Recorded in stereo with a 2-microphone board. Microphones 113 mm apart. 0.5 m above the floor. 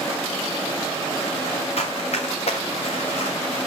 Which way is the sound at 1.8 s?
70° left (ahead or behind).